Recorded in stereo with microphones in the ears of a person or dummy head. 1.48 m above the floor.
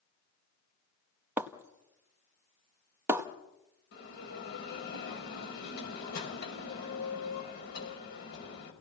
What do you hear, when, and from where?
1.4 s breaking glass: 10° right (ahead or behind), 1.0 m
3.9 s a bell: 65° left (ahead or behind), 5 m